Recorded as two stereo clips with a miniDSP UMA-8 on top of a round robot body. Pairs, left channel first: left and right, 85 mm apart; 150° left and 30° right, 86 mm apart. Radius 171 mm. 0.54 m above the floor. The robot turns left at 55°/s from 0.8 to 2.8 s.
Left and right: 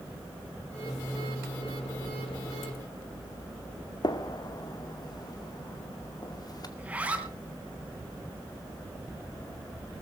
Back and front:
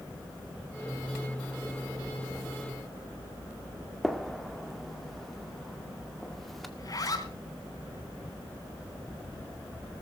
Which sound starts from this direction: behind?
A zipper, at 6.8 s.